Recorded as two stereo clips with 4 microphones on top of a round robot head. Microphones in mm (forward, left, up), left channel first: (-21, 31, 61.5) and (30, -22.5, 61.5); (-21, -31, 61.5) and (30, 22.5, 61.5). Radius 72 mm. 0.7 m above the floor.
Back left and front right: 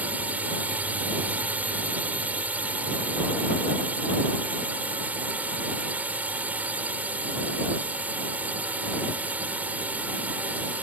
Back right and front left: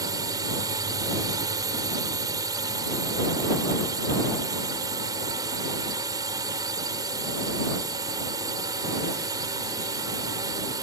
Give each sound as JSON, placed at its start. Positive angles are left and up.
{"t": 0.0, "sound": "a drone", "azimuth_deg": 20}